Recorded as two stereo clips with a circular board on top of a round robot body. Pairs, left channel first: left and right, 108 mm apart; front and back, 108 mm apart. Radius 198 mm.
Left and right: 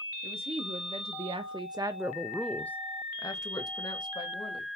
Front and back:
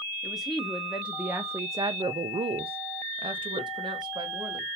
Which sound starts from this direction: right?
A woman speaking, at 0.2 s.